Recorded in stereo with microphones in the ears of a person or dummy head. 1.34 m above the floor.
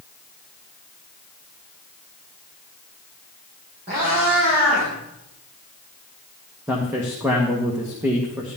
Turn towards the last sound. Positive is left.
turn(degrees=-10)  # may be behind; listen again after turning